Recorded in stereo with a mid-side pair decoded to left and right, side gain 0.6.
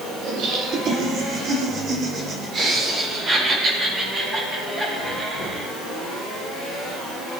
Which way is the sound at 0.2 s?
60° right.